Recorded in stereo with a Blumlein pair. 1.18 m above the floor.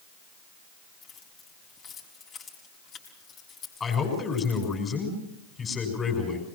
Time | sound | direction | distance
1.0 | keys jangling | 25° left | 5.5 m
3.8 | a man speaking | 15° left | 7 m